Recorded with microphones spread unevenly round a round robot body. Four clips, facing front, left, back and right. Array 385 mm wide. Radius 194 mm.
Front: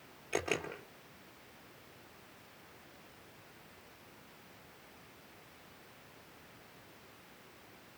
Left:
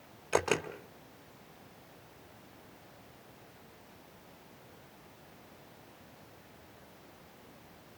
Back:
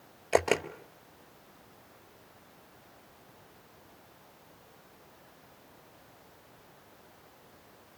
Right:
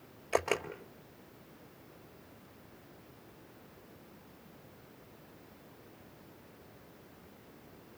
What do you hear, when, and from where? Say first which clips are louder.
0.3 s a camera shutter: left 1 dB, back 10 dB; 150° left, 2.5 m